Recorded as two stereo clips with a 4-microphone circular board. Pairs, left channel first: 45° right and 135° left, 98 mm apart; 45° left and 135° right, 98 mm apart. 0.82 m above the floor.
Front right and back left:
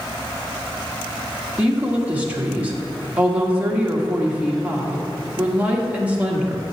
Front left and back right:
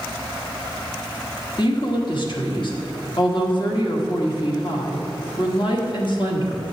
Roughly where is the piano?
I don't hear a piano.